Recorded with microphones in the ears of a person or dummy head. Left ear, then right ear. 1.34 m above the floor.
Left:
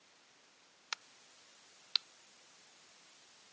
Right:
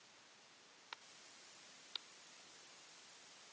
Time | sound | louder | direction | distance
0.9 | a crack | left 10 dB | 70° left (ahead or behind) | ?